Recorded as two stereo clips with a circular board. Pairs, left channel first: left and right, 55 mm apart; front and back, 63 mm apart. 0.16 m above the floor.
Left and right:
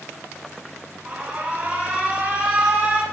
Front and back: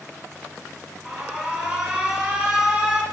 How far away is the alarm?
About 0.9 m.